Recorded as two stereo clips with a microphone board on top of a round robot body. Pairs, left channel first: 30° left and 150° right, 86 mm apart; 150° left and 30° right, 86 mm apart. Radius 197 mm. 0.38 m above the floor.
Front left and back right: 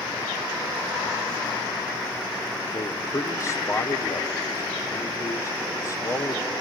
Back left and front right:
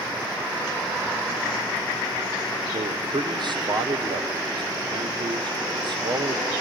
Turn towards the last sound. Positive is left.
turn(degrees=-20)